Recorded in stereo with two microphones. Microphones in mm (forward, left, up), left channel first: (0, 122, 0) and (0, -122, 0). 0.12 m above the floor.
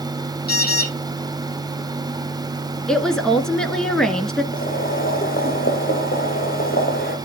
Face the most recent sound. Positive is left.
turn(degrees=40)  # may be behind; listen again after turning